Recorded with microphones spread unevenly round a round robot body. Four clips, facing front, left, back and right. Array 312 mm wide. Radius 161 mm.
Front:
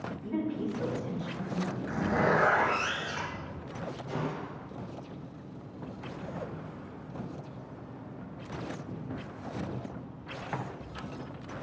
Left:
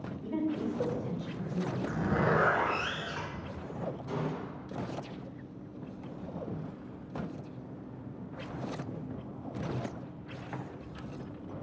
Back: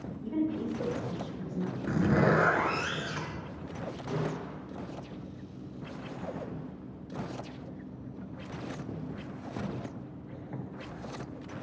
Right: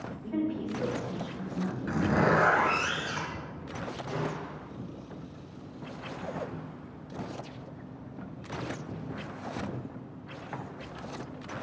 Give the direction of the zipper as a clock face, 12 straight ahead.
5 o'clock.